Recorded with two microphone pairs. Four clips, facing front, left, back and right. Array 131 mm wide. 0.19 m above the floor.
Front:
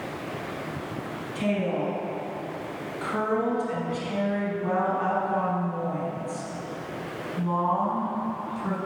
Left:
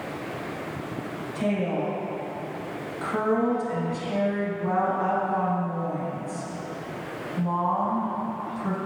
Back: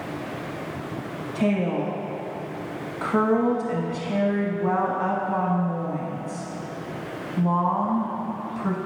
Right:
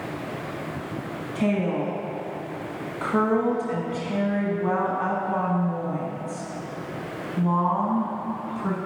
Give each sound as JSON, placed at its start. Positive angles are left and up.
{"t": 1.4, "sound": "a woman speaking", "azimuth_deg": -140, "distance_m": 1.4}